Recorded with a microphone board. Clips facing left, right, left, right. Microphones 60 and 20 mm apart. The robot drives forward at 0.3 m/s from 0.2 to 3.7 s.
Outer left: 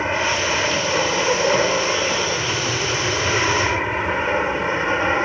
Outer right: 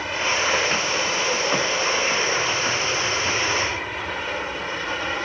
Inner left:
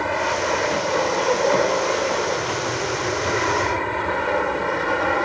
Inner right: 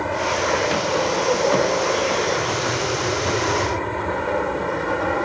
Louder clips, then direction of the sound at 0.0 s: Outer left 3 dB, even; 30° left (ahead or behind).